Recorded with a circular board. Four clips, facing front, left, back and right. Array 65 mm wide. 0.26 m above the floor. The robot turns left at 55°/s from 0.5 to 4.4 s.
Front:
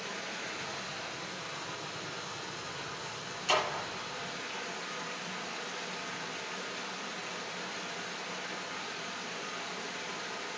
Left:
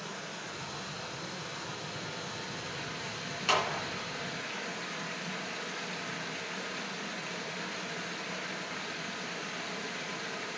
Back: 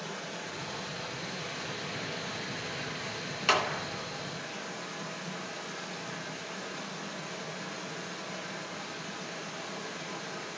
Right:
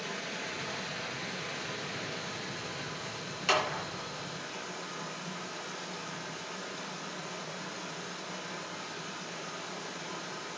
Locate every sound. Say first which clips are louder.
0.0 s running water: right 3 dB, back 1 dB; 65° right, 2.5 m; by 10.6 s 80° left, 2.5 m
3.5 s a clap: even, back 2 dB; 175° left, 3 m; by 3.8 s 155° left, 3 m